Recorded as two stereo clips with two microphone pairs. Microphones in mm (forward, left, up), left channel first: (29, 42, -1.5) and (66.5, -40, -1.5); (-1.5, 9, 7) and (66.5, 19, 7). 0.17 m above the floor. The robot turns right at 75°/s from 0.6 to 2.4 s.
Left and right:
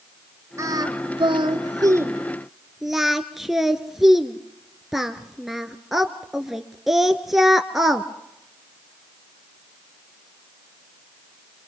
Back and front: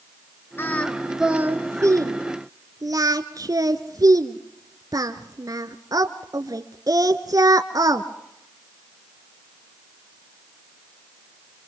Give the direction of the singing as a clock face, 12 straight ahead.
4 o'clock.